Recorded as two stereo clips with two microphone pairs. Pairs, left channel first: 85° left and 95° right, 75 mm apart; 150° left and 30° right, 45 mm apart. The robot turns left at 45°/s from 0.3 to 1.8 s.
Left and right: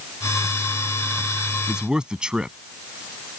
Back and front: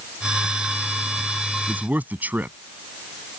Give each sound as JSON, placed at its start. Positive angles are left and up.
{"t": 1.7, "sound": "a man speaking", "azimuth_deg": -20}